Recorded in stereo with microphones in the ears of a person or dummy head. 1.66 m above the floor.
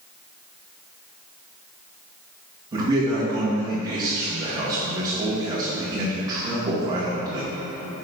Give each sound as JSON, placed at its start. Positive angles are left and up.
{"t": 2.7, "sound": "a man speaking", "side_deg": -15, "distance_m": 1.8}